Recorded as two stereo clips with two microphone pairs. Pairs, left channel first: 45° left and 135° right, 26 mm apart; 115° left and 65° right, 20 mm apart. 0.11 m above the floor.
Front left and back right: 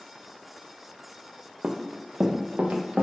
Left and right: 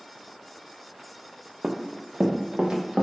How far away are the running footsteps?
About 0.6 m.